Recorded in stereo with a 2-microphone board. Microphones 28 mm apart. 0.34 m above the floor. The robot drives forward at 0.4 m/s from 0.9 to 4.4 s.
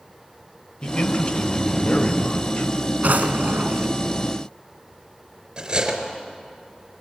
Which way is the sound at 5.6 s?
25° right (ahead or behind).